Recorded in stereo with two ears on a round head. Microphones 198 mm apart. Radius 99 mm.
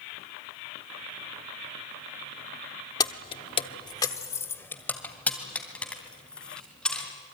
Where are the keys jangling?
20° left (ahead or behind), 0.9 m; by 7.1 s 5° left (ahead or behind), 5 m.